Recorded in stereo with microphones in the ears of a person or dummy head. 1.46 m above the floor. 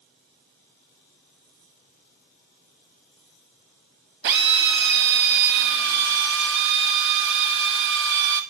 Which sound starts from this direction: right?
A drill, at 4.2 s.